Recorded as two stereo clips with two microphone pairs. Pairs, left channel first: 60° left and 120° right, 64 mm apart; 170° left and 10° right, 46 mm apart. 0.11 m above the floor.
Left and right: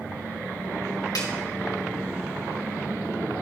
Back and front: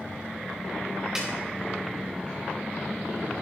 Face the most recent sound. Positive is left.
turn(degrees=65)